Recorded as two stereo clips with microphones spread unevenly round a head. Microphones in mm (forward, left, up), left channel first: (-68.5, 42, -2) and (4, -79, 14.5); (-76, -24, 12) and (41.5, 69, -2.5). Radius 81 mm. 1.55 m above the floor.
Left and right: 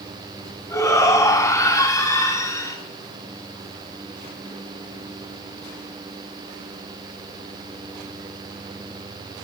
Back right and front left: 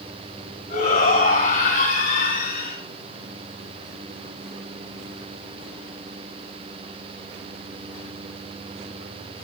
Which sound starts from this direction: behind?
A shout, at 0.7 s.